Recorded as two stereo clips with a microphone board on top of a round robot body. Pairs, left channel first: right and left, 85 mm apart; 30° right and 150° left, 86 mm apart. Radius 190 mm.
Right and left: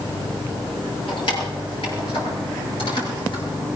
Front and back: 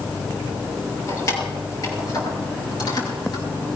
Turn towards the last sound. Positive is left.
turn(degrees=-65)